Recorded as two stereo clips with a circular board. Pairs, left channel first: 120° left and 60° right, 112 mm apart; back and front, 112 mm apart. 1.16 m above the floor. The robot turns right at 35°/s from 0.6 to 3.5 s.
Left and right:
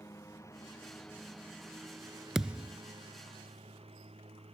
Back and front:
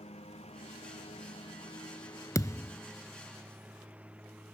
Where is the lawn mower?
Straight behind; by 4.5 s 75° right.